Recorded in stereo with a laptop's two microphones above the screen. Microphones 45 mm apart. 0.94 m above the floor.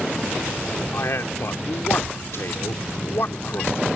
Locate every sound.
0.9 s a man speaking: 65° left (ahead or behind)